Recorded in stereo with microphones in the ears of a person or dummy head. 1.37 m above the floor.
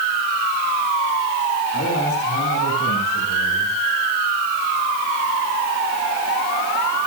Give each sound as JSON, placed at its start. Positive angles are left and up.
{"t": 1.7, "sound": "a man speaking", "side_deg": 50, "distance_m": 7.5}